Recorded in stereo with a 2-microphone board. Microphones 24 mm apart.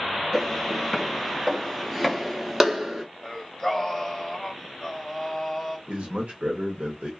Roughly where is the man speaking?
Right.